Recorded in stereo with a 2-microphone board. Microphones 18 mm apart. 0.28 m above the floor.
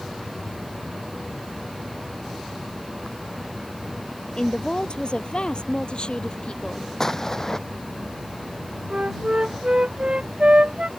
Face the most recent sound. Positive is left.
turn(degrees=-60)  # may be behind; listen again after turning